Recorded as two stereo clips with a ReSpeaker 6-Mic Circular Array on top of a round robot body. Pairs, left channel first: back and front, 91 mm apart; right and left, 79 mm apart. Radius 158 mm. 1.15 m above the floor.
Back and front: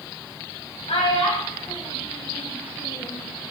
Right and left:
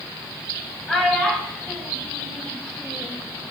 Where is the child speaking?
175° right, 4.5 m; by 3.2 s 165° right, 1.5 m.